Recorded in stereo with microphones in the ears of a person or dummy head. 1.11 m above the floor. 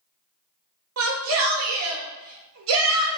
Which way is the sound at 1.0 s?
85° right.